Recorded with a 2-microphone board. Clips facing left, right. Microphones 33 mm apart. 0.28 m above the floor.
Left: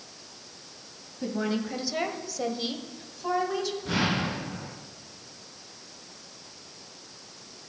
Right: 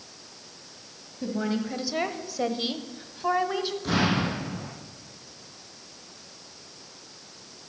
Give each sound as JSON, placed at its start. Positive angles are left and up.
{"t": 1.2, "sound": "a woman speaking", "side_deg": 10, "distance_m": 1.5}
{"t": 3.8, "sound": "an explosion", "side_deg": -70, "distance_m": 6.0}